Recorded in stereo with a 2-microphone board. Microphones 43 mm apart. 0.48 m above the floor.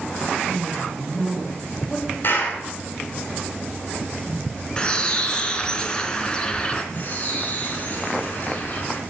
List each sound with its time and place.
0.5 s a woman speaking: 10° left (ahead or behind), 5 m
2.2 s a clap: 55° left (ahead or behind), 5 m
4.8 s a bird: 20° left (ahead or behind), 1.9 m
6.9 s a bird: 40° left (ahead or behind), 4.5 m